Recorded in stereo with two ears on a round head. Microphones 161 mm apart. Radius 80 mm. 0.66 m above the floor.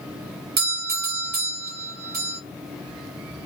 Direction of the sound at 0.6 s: 55° right (ahead or behind).